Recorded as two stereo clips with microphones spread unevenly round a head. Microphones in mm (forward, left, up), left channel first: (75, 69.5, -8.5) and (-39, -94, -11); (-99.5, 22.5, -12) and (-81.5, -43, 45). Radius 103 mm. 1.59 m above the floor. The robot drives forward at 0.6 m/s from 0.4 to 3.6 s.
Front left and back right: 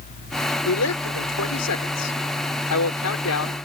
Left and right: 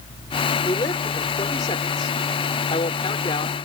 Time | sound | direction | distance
0.7 | a woman speaking | 60° left | ?